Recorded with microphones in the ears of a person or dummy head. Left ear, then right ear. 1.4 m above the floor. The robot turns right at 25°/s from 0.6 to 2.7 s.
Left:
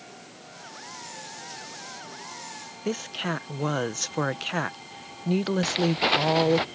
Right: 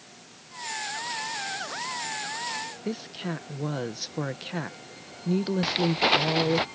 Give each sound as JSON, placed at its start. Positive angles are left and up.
{"t": 2.9, "sound": "a woman speaking", "side_deg": 35}
{"t": 5.6, "sound": "footsteps", "side_deg": 5}